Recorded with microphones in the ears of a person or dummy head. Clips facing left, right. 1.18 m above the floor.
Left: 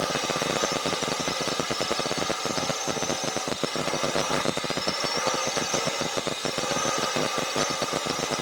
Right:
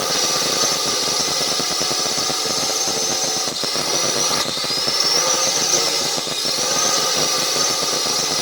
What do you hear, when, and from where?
0.0 s a drone: 65° right (ahead or behind)